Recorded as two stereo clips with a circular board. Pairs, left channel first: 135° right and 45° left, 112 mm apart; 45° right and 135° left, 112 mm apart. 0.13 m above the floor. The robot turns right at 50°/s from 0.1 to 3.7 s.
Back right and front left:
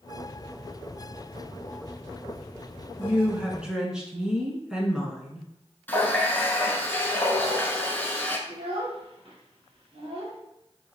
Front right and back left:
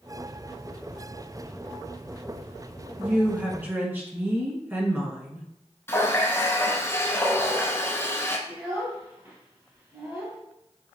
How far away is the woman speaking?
About 1.2 m.